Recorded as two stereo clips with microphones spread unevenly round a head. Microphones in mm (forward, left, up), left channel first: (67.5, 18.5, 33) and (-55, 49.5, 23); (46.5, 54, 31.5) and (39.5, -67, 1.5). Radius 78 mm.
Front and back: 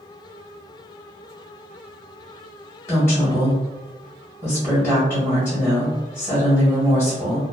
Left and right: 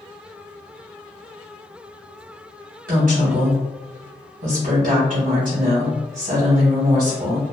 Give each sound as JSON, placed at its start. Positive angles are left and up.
{"t": 2.9, "sound": "a woman speaking", "azimuth_deg": -85, "distance_m": 1.8}